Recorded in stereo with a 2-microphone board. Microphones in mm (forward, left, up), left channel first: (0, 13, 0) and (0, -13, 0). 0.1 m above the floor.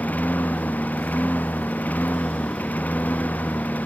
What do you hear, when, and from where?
0.0 s a lawn mower: 85° left